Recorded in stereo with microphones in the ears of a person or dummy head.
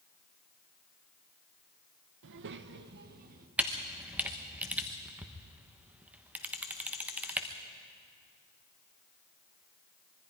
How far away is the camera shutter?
About 1.3 m.